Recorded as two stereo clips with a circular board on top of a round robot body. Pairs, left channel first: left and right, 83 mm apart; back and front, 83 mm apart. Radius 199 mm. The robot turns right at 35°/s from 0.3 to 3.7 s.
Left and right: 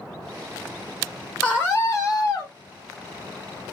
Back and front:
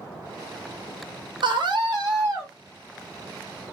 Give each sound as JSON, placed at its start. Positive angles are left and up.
{"t": 1.4, "sound": "a scream", "azimuth_deg": 20, "distance_m": 1.3}